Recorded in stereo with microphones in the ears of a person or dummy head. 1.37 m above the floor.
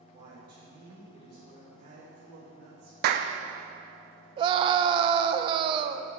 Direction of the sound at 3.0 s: 65° right (ahead or behind).